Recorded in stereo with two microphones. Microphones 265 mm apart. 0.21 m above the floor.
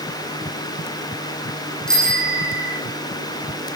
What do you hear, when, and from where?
1.9 s a bicycle bell: 5° left (ahead or behind), 8.5 m